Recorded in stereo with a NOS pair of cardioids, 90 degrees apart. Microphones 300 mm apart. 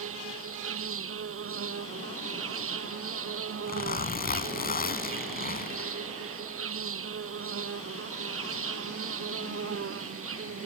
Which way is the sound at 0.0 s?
50° right.